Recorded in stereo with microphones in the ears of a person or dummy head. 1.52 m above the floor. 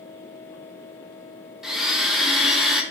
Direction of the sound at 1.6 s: 5° right (ahead or behind).